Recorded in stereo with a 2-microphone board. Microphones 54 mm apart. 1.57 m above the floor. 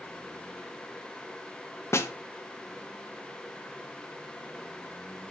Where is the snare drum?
60° left (ahead or behind), 1.2 m.